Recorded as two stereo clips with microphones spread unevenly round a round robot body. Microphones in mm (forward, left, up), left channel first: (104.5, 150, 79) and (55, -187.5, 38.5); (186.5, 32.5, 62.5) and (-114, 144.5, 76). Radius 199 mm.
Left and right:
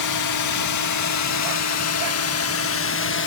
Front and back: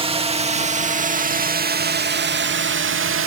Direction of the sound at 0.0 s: 90° left.